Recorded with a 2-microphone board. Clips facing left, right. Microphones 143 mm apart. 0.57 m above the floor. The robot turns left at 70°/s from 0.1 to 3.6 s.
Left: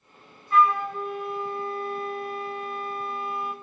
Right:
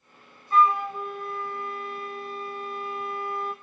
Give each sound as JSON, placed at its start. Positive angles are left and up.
{"t": 0.5, "sound": "a flute", "azimuth_deg": -140, "distance_m": 0.7}